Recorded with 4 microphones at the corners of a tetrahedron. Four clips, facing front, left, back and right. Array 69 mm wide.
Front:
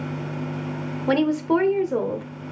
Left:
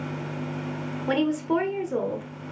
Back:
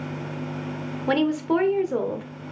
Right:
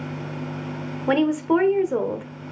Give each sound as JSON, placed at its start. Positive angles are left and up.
{"t": 1.1, "sound": "a woman speaking", "azimuth_deg": -80, "distance_m": 1.3}